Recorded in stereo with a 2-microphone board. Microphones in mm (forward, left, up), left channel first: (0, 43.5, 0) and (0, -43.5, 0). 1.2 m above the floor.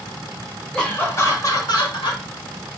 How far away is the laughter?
About 1.5 m.